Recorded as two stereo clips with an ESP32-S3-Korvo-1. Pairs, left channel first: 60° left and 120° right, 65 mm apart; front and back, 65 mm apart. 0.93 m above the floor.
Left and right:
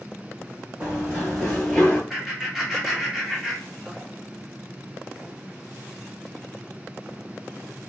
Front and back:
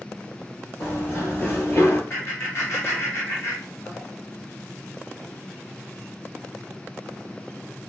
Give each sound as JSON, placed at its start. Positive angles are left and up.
{"t": 0.8, "sound": "running footsteps", "azimuth_deg": -50, "distance_m": 1.4}
{"t": 2.1, "sound": "laughter", "azimuth_deg": -35, "distance_m": 1.4}